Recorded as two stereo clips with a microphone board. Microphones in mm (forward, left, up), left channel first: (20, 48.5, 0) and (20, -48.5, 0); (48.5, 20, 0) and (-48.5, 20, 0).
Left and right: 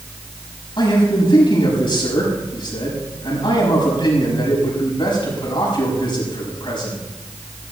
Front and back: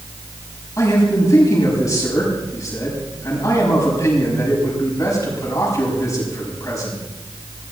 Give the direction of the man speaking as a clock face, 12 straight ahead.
10 o'clock.